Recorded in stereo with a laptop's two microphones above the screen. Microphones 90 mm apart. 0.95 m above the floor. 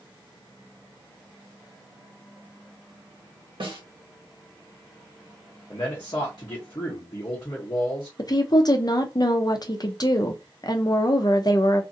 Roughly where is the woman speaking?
Left.